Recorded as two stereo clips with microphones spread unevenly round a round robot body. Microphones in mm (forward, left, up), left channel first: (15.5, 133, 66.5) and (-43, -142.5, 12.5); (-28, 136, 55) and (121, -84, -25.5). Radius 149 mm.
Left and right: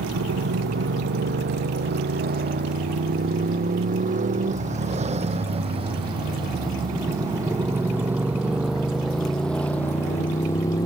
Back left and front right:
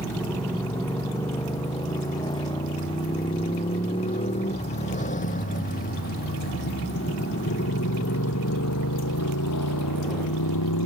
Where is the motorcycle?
155° right; by 10.9 s 155° left.